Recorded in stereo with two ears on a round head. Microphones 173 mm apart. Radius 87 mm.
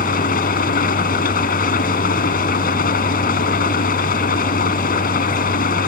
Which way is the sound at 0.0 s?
50° left (ahead or behind).